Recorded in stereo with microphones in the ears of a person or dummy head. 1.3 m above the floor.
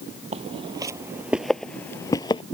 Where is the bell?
No bell in this recording.